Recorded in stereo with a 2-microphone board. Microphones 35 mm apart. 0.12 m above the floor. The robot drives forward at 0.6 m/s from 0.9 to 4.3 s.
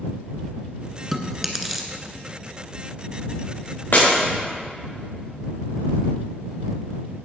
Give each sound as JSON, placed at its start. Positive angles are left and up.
{"t": 1.1, "sound": "chewing", "side_deg": -5, "distance_m": 1.5}
{"t": 3.9, "sound": "breaking glass", "side_deg": 60, "distance_m": 6.0}